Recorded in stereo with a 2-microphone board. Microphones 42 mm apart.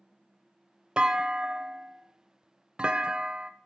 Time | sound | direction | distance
1.0 | a clunk | 25° right (ahead or behind) | 0.6 m